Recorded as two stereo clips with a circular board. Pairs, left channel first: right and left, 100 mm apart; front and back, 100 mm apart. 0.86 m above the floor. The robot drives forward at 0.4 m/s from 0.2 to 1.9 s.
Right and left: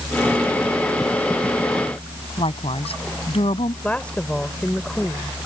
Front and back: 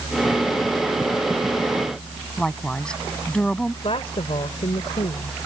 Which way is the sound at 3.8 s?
15° right.